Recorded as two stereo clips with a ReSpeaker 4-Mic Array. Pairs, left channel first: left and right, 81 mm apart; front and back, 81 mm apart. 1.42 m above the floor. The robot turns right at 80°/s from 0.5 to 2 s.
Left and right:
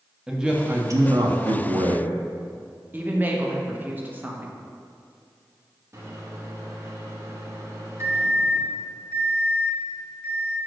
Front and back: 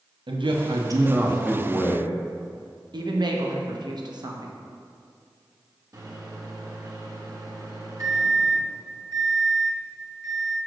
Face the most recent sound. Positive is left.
turn(degrees=-140)